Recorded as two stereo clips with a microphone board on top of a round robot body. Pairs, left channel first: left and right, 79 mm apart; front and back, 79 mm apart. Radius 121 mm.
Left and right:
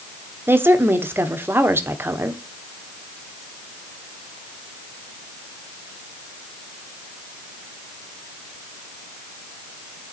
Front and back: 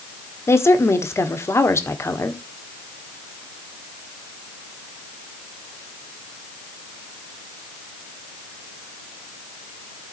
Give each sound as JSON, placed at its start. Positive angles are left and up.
{"t": 0.5, "sound": "a woman speaking", "azimuth_deg": -40, "distance_m": 1.5}